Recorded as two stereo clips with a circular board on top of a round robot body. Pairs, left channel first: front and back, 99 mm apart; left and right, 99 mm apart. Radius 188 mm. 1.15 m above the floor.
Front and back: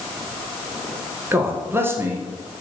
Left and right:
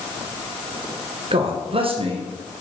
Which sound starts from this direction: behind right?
A man speaking, at 1.3 s.